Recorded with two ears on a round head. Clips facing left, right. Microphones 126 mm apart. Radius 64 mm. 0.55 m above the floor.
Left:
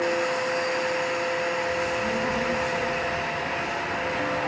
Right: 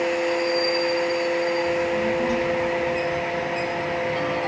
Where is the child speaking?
70° right (ahead or behind), 8.5 m; by 4.4 s 80° right, 7.5 m.